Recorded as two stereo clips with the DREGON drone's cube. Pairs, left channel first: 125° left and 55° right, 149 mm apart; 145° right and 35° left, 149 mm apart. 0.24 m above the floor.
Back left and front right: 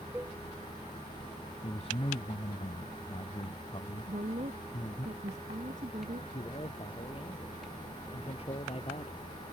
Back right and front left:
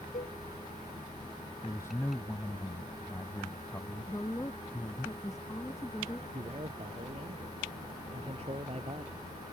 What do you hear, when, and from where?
0.1 s a cowbell: 130° right
1.6 s a man speaking: 150° left
4.1 s a woman speaking: 80° right
6.3 s a man speaking: 80° left